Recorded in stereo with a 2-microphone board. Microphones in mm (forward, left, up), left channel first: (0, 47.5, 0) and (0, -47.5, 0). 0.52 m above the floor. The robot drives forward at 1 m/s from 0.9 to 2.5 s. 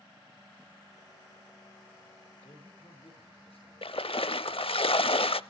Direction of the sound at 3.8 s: 75° left (ahead or behind).